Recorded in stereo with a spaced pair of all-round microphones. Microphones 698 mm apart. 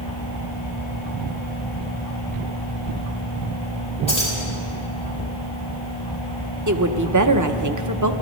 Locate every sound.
4.1 s keys jangling: 10° left (ahead or behind), 5 m
6.7 s a woman speaking: 25° right (ahead or behind), 0.7 m